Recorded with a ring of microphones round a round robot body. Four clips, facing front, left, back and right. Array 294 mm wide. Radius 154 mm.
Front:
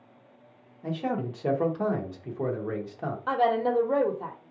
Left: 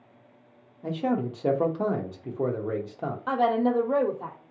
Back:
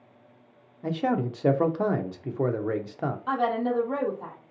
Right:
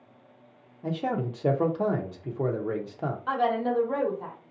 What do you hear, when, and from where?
0.8 s a man speaking: straight behind, 0.8 m
3.3 s a woman speaking: 45° left, 0.9 m